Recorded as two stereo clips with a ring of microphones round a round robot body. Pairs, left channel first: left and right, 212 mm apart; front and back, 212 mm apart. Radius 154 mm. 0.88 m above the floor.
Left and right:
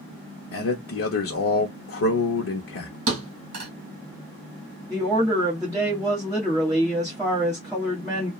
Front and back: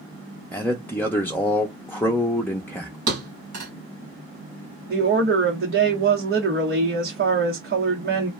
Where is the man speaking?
85° left, 0.7 m.